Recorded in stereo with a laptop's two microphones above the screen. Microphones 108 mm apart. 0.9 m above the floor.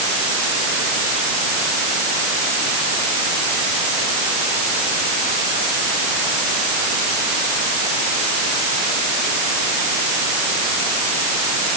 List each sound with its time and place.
Only background noise.